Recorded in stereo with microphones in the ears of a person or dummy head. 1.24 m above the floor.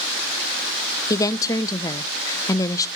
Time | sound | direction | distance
1.1 | a woman speaking | 15° left (ahead or behind) | 0.6 m